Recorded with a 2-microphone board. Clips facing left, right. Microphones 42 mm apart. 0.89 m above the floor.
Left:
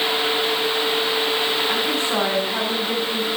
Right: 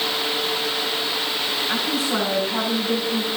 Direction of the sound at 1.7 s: 50° left (ahead or behind).